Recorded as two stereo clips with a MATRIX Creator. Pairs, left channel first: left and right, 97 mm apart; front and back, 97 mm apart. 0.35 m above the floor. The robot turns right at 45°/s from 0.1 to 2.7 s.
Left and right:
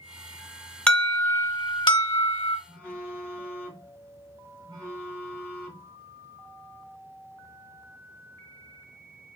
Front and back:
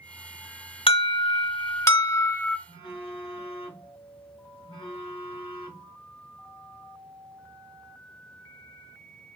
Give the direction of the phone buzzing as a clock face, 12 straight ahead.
1 o'clock.